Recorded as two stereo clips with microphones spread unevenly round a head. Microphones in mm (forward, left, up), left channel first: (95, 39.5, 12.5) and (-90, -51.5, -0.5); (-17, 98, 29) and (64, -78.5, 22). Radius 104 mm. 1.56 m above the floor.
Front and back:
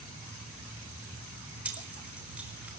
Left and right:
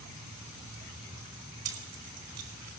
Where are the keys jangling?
70° right, 6 m.